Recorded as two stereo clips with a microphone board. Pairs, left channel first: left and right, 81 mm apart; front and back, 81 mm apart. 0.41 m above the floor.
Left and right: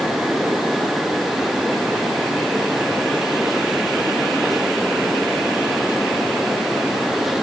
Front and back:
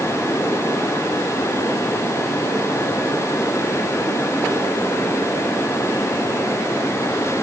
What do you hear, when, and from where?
Only background noise.